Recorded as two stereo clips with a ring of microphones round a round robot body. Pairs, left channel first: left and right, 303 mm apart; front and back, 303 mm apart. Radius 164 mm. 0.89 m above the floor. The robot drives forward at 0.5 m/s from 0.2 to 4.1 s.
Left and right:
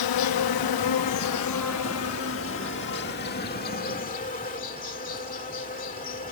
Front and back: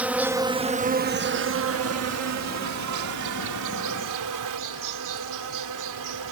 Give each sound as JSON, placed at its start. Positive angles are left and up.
{"t": 0.0, "sound": "an insect", "azimuth_deg": 95}